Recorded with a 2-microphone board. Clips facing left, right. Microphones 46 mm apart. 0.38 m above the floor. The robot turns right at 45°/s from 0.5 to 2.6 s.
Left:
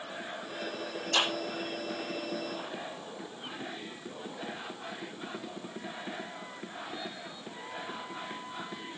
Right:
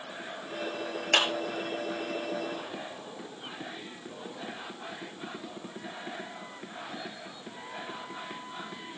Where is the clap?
60° right (ahead or behind), 5.5 m; by 1.3 s 65° right (ahead or behind), 5.5 m.